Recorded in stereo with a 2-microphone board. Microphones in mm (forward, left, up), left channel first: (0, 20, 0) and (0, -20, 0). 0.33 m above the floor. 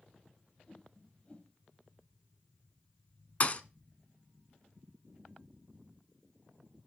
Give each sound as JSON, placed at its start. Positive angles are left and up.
{"t": 0.7, "sound": "a whoosh", "side_deg": 30, "distance_m": 2.0}
{"t": 3.4, "sound": "a thud", "side_deg": 35, "distance_m": 0.8}